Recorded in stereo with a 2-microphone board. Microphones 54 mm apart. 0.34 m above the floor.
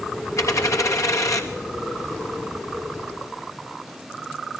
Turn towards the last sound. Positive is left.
turn(degrees=80)